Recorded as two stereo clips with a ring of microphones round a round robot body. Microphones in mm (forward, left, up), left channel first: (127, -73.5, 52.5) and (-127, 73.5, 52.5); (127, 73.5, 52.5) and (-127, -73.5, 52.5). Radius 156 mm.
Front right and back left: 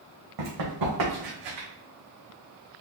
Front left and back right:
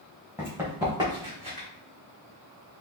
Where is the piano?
I don't hear a piano.